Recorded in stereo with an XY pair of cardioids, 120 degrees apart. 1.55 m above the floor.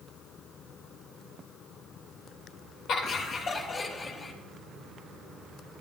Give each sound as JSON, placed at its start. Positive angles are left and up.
{"t": 2.9, "sound": "laughter", "azimuth_deg": 60, "distance_m": 3.0}